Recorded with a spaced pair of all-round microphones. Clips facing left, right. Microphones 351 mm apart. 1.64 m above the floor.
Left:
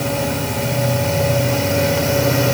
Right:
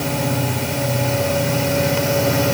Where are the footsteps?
I don't hear footsteps.